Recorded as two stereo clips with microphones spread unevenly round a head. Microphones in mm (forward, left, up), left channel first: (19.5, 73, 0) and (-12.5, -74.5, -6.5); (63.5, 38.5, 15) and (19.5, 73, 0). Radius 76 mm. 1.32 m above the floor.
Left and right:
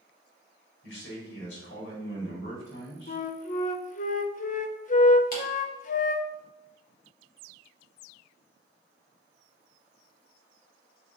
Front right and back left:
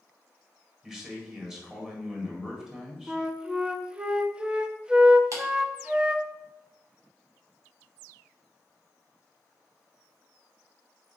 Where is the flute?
60° left, 0.8 m.